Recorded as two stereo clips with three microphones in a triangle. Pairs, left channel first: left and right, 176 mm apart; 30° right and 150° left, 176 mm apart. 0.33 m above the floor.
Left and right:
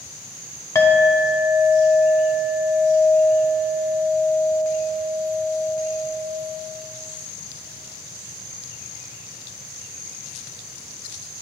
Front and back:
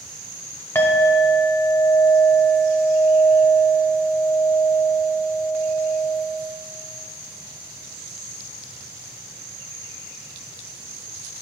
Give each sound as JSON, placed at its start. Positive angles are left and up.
{"t": 0.8, "sound": "a clink", "azimuth_deg": 30, "distance_m": 0.8}